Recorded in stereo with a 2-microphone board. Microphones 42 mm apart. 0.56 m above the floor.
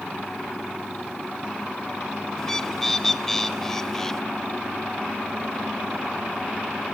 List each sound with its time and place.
2.4 s a bird: 10° left (ahead or behind), 0.6 m